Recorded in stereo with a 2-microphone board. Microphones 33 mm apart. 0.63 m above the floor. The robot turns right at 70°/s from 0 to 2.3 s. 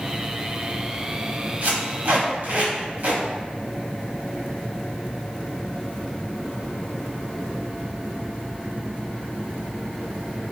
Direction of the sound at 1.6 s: 60° right (ahead or behind).